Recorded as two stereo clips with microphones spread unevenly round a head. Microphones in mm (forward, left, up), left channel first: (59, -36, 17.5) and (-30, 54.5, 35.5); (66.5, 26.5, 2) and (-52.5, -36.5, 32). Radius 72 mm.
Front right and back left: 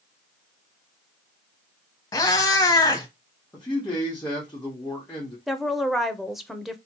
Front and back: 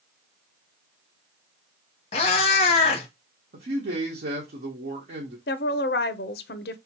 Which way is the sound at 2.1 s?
10° left.